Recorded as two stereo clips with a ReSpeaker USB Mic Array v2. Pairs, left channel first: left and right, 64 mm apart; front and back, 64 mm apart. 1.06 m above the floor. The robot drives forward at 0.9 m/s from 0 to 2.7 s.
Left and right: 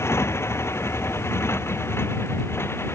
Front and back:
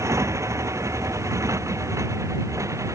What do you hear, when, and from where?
0.0 s a motorcycle: 140° left